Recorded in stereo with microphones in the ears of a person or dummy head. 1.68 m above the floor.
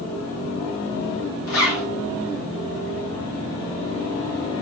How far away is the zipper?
About 1.4 m.